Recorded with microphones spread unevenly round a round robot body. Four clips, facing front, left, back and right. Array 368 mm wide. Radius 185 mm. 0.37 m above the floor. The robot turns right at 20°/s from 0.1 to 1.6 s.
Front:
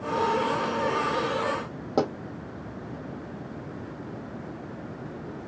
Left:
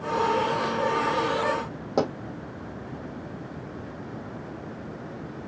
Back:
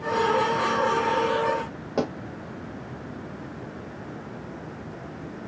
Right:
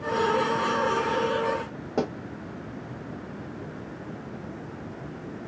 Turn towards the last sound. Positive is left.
turn(degrees=40)